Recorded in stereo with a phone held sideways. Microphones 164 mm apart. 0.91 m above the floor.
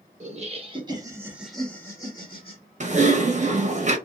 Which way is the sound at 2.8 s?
45° right (ahead or behind).